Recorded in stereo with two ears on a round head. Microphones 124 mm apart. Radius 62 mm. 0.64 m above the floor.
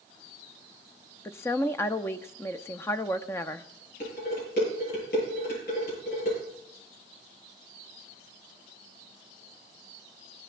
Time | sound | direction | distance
1.2 | a woman speaking | 20° left (ahead or behind) | 0.6 m
4.0 | dishes clattering | 85° left | 9.5 m